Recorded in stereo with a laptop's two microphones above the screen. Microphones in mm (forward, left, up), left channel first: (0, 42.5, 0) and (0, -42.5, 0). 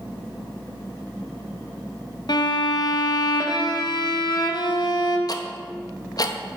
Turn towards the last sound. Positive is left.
turn(degrees=50)  # may be behind; listen again after turning